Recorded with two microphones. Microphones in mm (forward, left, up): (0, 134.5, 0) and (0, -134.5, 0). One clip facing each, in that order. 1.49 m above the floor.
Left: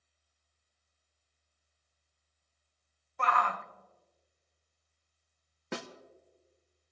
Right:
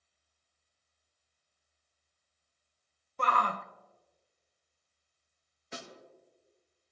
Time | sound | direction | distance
3.2 | a shout | 40° right (ahead or behind) | 0.8 m
5.7 | a snare drum | 65° left (ahead or behind) | 0.9 m